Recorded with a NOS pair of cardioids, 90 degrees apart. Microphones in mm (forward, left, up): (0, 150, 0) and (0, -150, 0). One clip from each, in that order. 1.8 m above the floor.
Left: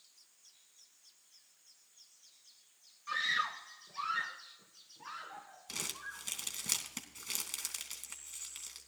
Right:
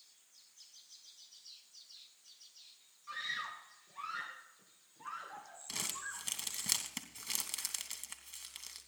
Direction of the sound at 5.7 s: 10° right.